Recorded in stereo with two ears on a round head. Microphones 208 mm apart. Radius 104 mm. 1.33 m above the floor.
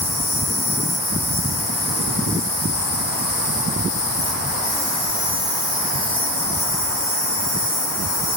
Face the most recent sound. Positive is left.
turn(degrees=50)  # may be behind; listen again after turning